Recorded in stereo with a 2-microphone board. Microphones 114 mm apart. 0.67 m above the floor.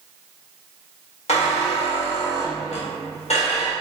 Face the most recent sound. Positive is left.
turn(degrees=75)  # may be behind; listen again after turning